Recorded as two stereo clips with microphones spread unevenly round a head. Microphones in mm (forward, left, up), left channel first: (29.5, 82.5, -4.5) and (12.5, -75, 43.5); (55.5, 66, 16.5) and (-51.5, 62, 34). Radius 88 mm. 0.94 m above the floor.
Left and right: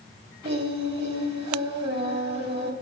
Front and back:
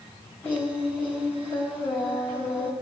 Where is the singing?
75° right, 2.5 m.